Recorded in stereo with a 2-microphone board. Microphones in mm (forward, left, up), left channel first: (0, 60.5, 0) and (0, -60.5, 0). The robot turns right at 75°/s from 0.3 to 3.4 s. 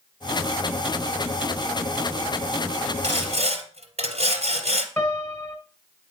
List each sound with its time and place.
3.0 s sawing: 60° right (ahead or behind), 2 m; by 4.9 s 65° right (ahead or behind), 2 m
5.0 s a piano: 15° left (ahead or behind), 1.5 m